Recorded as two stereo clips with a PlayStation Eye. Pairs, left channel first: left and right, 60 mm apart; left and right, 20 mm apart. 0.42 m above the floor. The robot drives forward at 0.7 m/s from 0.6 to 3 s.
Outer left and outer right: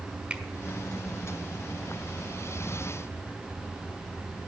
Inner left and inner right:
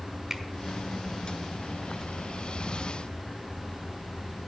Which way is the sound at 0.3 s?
20° right (ahead or behind).